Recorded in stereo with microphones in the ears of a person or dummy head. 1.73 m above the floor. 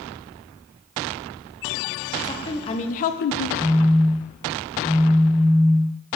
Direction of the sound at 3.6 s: Centre (ahead or behind).